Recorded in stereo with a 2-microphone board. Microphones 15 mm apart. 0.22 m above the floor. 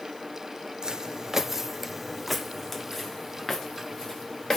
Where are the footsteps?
55° right (ahead or behind), 0.7 m; by 4.6 s 30° left (ahead or behind), 1.8 m.